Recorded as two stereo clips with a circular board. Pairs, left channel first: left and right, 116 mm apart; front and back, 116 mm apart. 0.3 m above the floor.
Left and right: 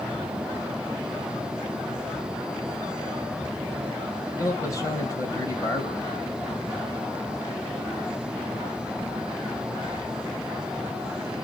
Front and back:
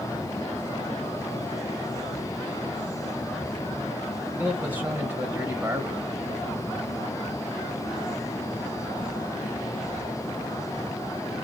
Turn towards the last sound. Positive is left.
turn(degrees=115)